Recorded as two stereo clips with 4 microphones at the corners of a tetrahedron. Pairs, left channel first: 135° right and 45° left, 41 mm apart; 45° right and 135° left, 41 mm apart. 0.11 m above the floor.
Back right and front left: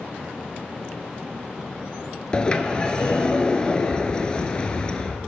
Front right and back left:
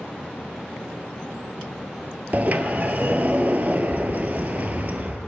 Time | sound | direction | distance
2.3 | a sliding door | 165° left | 0.6 m